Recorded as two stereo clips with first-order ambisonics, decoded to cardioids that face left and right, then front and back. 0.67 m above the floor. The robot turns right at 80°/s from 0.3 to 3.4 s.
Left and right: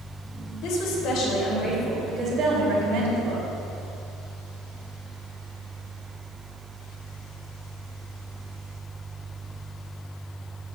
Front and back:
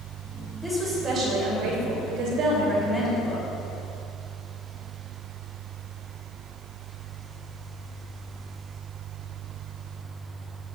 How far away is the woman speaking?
About 3 m.